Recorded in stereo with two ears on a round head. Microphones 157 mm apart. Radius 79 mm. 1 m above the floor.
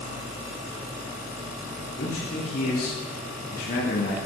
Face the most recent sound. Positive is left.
turn(degrees=50)  # may be behind; listen again after turning